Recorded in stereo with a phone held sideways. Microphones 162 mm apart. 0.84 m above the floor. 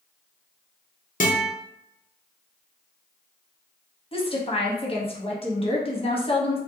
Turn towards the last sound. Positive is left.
turn(degrees=35)  # may be behind; listen again after turning